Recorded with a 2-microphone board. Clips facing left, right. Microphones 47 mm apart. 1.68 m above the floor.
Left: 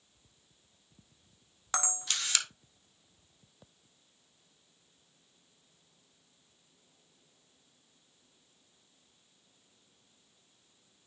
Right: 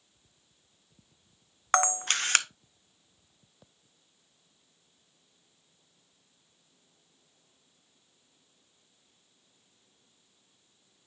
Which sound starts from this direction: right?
A camera shutter, at 1.7 s.